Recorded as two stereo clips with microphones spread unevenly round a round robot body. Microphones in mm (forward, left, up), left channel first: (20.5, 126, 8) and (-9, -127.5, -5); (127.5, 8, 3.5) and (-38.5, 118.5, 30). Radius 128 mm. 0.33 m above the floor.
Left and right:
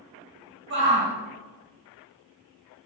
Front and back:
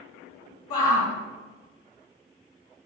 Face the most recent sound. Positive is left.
turn(degrees=-50)